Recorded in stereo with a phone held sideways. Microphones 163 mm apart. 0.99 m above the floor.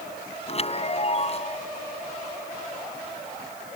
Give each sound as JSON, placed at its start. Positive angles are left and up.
{"t": 0.5, "sound": "a chime", "side_deg": 40}